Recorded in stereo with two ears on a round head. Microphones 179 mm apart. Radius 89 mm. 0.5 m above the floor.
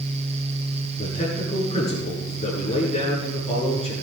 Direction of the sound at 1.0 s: 25° left (ahead or behind).